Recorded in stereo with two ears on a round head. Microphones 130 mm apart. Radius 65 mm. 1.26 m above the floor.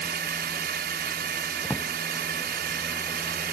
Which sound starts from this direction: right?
A drone, at 0.0 s.